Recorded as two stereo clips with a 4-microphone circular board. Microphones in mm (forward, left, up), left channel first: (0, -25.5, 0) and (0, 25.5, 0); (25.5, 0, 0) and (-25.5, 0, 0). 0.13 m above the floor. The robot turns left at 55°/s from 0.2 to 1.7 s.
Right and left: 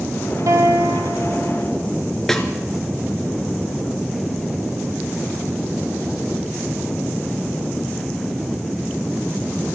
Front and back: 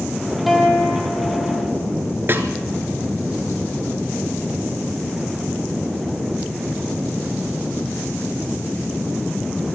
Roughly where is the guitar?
Left.